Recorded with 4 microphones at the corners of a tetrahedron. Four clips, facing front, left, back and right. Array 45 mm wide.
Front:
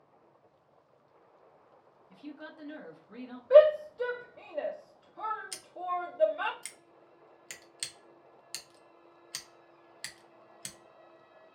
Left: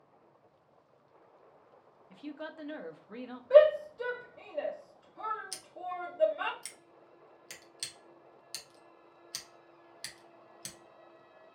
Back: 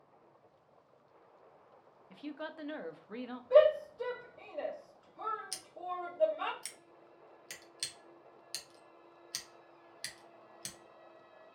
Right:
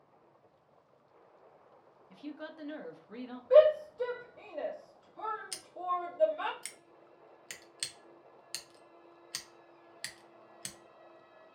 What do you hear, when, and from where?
2.1 s a woman speaking: 155° left, 0.5 m
3.5 s a shout: straight ahead, 0.8 m
5.5 s scissors: 50° right, 0.6 m